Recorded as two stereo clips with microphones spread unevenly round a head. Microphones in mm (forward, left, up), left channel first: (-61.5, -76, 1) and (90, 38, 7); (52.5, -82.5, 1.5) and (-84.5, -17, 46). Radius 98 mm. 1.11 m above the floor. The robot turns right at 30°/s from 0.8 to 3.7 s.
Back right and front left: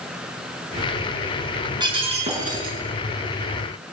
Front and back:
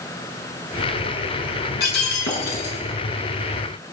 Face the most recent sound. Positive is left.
turn(degrees=25)